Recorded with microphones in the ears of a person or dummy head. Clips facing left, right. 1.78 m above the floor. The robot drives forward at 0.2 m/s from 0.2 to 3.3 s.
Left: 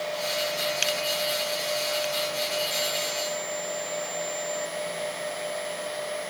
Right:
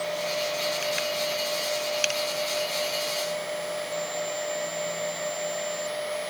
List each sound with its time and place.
Only background noise.